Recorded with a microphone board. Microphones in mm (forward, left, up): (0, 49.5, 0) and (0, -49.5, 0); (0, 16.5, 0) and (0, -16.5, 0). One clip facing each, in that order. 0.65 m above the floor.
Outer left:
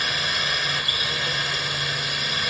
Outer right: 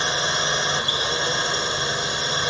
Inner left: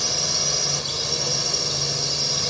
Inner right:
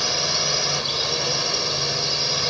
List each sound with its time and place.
0.0 s a drone: 25° right (ahead or behind)